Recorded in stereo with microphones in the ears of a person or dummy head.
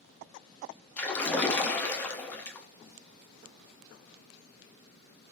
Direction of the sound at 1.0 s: 5° left (ahead or behind).